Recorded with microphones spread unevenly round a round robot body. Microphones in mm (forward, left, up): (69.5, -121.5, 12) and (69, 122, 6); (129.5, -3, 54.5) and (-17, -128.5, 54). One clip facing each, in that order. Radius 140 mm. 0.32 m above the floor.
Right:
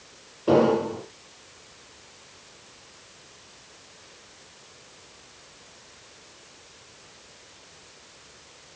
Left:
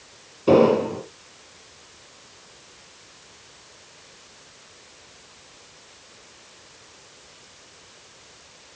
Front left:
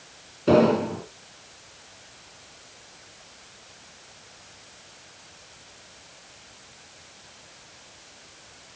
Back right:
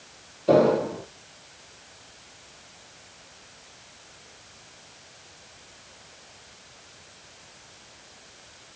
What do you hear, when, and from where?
0.5 s an explosion: 40° left, 5 m